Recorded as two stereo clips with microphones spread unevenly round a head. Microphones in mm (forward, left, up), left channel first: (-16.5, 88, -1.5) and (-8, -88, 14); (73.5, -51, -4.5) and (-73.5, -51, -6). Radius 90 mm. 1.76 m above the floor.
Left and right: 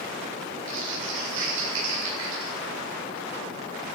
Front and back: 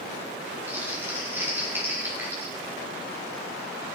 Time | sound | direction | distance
0.7 | crumpling | 105° right | 8.5 m